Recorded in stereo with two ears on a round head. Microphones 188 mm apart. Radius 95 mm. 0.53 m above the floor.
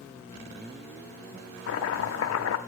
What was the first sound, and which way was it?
Chopping, 65° left (ahead or behind).